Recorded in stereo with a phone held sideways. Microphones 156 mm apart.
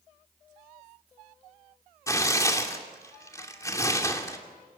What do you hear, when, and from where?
2.1 s tearing paper: 20° left (ahead or behind), 2.5 m